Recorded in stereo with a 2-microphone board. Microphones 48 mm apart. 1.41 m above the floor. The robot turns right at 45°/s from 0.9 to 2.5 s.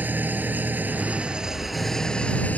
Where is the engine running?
40° right; by 2.6 s 30° left.